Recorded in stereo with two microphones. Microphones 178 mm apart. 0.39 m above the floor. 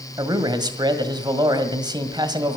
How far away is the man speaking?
About 1.8 m.